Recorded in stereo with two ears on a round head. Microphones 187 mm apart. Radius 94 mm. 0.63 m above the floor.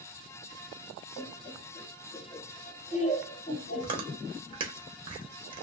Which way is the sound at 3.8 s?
25° right (ahead or behind).